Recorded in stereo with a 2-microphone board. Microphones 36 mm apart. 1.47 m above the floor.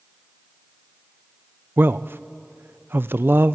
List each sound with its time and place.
1.8 s a man speaking: 85° right, 0.6 m